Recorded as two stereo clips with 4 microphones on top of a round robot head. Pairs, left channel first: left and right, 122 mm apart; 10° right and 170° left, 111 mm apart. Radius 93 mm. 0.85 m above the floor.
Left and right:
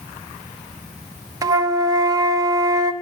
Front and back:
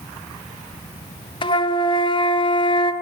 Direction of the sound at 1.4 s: 35° right.